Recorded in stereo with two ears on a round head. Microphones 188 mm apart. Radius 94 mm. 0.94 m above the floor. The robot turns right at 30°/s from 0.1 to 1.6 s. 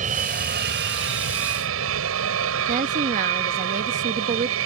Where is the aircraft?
140° right; by 4.7 s 95° right.